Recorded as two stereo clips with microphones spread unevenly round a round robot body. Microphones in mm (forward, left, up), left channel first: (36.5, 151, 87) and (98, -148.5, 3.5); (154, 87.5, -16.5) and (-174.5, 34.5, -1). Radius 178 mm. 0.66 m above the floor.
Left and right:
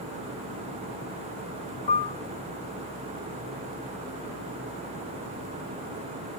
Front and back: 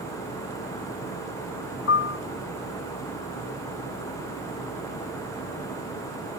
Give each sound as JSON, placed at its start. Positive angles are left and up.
{"t": 1.9, "sound": "a piano", "azimuth_deg": 55, "distance_m": 0.6}